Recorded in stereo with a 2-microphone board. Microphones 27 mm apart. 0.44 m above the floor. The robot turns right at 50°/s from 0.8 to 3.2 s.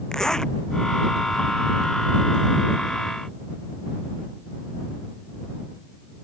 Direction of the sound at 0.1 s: 25° left (ahead or behind).